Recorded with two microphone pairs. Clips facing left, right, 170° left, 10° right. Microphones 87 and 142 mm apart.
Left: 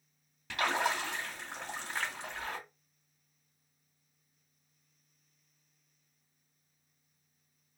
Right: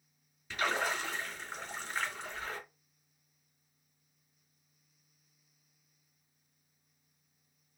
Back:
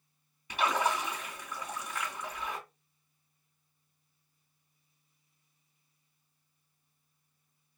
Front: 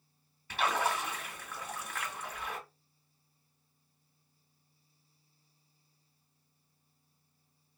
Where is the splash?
95° left, 1.9 m.